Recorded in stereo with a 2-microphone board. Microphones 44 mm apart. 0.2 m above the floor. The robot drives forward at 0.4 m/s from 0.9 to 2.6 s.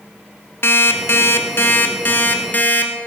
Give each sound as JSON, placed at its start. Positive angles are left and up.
{"t": 0.6, "sound": "an alarm clock", "side_deg": 60, "distance_m": 1.0}